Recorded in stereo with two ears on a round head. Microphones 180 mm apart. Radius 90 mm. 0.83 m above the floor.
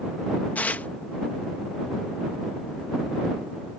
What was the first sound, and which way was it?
Tearing paper, 5° left (ahead or behind).